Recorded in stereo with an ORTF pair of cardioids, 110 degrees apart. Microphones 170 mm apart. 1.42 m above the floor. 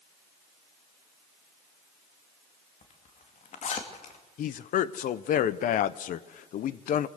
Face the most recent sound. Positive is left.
turn(degrees=55)